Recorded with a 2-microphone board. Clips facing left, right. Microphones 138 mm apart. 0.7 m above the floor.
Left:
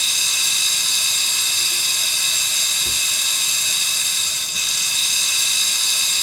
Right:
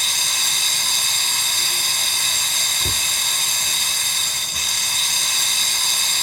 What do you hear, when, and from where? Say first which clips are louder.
0.0 s running water: right 4 dB; 55° right (ahead or behind), 0.8 m
2.8 s a cupboard door: right 7 dB; 75° right (ahead or behind), 0.7 m